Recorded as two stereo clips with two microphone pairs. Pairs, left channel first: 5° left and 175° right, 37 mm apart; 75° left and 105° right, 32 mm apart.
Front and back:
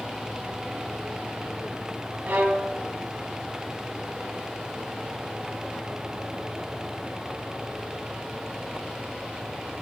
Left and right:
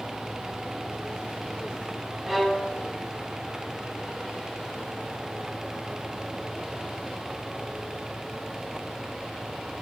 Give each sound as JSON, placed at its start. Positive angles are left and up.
{"t": 2.3, "sound": "a violin", "azimuth_deg": 165, "distance_m": 1.0}